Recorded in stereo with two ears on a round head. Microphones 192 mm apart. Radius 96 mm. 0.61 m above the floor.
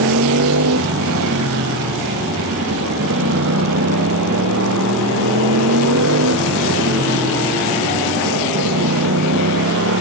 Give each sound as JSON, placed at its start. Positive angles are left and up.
{"t": 0.0, "sound": "a motorcycle", "side_deg": -75}